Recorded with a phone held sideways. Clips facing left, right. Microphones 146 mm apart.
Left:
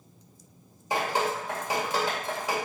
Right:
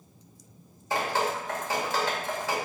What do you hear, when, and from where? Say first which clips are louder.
0.9 s dripping: even; 15° left (ahead or behind), 1.9 m